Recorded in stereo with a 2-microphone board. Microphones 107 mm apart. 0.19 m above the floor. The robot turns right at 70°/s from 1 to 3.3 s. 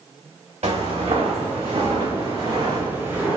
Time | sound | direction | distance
0.6 | footsteps | 80° right | 1.1 m